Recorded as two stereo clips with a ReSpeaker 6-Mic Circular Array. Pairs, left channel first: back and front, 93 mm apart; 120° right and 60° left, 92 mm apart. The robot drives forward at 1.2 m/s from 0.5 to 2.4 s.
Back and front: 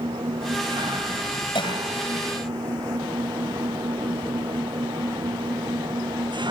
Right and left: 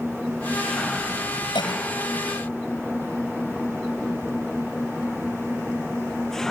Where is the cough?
155° right.